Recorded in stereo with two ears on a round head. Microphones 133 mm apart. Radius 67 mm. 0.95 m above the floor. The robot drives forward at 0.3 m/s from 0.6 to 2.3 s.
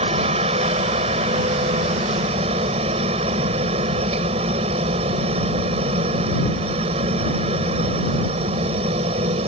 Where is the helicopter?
40° right (ahead or behind).